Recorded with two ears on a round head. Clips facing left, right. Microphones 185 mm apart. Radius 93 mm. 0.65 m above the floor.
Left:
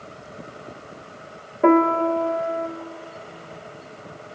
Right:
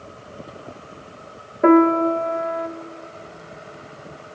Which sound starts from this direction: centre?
A piano, at 1.6 s.